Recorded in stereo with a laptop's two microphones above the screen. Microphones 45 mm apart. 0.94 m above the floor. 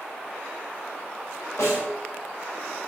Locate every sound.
1.6 s a snare drum: 85° left, 4 m